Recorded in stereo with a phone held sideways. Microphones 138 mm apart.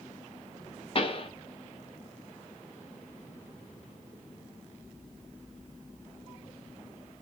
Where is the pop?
40° left (ahead or behind), 0.7 m.